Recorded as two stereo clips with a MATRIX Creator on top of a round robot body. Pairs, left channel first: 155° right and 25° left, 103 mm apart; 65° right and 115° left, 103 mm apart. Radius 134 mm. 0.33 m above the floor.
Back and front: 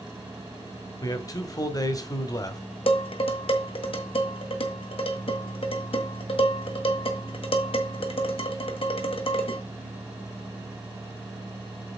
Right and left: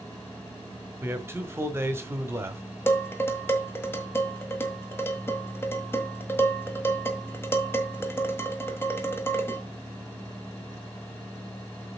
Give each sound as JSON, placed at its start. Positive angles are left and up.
{"t": 1.0, "sound": "a man speaking", "azimuth_deg": 170, "distance_m": 1.5}
{"t": 2.9, "sound": "dishes clattering", "azimuth_deg": -135, "distance_m": 1.7}